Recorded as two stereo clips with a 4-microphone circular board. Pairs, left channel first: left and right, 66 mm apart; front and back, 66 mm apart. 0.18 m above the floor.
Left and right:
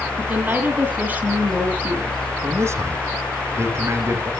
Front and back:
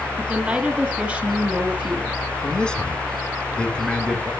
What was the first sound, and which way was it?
A woman speaking, 120° right.